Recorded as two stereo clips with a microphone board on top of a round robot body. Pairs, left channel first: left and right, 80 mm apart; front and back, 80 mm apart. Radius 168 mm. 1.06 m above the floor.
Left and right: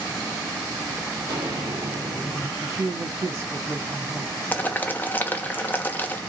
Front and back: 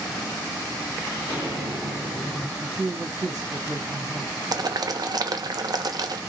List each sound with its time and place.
1.1 s footsteps: 130° right, 1.9 m; by 2.5 s 55° right, 1.2 m
2.6 s a woman speaking: 135° right, 1.8 m
4.5 s boiling: 155° left, 0.9 m